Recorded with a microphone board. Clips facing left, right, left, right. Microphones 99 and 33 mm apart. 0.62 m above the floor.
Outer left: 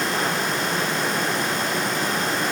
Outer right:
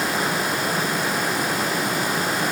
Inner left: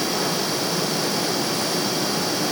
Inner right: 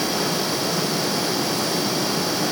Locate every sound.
Only background noise.